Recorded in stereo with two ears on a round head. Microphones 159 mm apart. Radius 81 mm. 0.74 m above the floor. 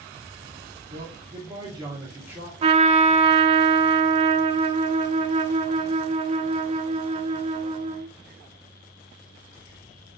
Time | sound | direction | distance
0.9 | a man speaking | 35° right (ahead or behind) | 1.5 m
2.6 | a trumpet | 35° right (ahead or behind) | 0.5 m